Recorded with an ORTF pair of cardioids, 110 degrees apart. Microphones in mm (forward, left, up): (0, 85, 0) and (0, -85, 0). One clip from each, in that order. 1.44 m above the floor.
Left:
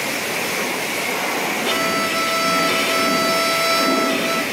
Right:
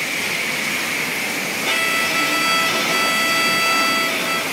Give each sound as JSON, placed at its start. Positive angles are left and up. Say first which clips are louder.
{"t": 1.6, "sound": "a violin", "louder": "right 3 dB", "azimuth_deg": 0, "distance_m": 1.6}